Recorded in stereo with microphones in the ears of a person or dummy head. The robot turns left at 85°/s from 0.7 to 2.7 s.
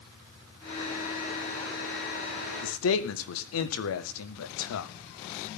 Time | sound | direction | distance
2.6 | a man speaking | 75° left (ahead or behind) | 1.6 m